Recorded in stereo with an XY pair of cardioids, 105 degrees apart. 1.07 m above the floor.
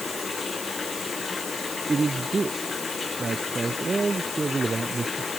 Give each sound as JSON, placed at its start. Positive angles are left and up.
{"t": 0.0, "sound": "running water", "azimuth_deg": 25}
{"t": 1.9, "sound": "a man speaking", "azimuth_deg": -30}